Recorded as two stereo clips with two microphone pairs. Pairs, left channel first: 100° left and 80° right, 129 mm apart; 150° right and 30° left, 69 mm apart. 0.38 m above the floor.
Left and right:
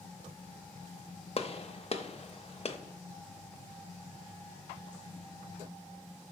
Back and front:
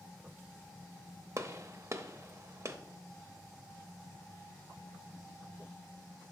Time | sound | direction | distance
1.4 | a gunshot | 75° left | 0.6 m